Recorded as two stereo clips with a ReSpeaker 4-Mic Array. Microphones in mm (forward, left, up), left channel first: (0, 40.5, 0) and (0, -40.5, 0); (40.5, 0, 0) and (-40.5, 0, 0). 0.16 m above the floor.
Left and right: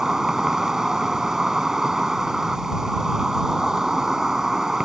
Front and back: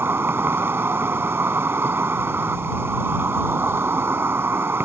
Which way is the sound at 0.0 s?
165° right.